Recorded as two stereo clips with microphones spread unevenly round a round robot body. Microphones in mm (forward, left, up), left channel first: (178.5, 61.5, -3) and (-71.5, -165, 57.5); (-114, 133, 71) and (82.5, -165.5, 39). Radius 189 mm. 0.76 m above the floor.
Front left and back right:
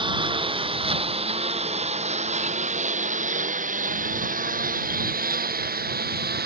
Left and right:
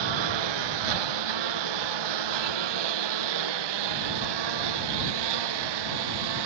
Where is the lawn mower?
60° right; by 6.5 s 75° right.